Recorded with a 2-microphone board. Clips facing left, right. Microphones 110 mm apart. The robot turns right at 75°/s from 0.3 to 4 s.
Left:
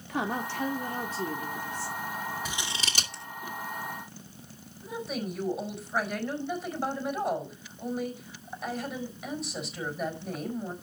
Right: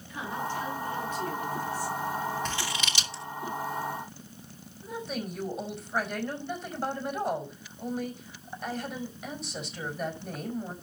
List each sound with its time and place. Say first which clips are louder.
0.1 s a woman speaking: left 2 dB; 80° left, 1.7 m; by 2.0 s 155° right, 1.7 m
2.5 s scissors: right 3 dB; 10° left (ahead or behind), 2.5 m; by 3.2 s 60° left (ahead or behind), 2.5 m
4.8 s a woman speaking: left 1 dB; centre (ahead or behind), 4.5 m